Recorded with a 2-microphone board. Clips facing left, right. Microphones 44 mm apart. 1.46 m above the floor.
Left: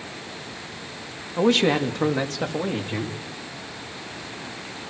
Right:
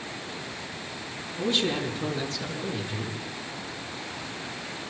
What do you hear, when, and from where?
1.4 s a man speaking: 80° left, 3 m; by 3.2 s 50° left (ahead or behind), 3.5 m